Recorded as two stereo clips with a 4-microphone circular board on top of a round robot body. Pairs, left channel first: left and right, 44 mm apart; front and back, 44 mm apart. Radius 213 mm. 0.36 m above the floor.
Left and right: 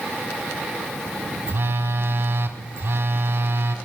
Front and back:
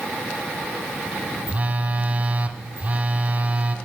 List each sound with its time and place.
1.5 s a phone buzzing: 125° right, 1.2 m